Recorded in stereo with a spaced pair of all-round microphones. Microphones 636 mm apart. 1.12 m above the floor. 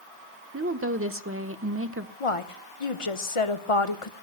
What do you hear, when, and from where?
0.5 s a woman speaking: 20° right (ahead or behind), 1.0 m
2.2 s a woman speaking: 60° left (ahead or behind), 1.2 m